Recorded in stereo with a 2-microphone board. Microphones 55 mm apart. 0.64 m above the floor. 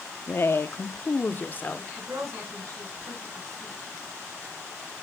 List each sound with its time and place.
0.3 s a woman speaking: 45° left (ahead or behind), 0.8 m; by 1.9 s 35° left (ahead or behind), 1.6 m
2.0 s a woman speaking: 70° right (ahead or behind), 8 m